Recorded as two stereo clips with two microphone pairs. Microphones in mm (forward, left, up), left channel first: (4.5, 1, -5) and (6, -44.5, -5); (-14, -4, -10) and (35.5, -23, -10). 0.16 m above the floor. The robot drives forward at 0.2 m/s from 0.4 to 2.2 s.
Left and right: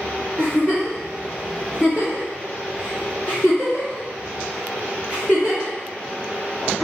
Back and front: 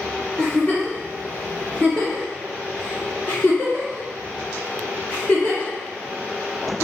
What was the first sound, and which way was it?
A giggle, 100° left.